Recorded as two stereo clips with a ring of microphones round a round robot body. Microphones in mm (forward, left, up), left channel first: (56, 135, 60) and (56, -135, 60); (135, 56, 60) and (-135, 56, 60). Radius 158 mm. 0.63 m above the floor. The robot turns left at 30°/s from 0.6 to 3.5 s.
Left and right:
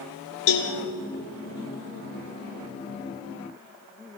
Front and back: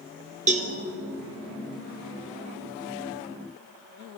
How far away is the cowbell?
About 2.5 m.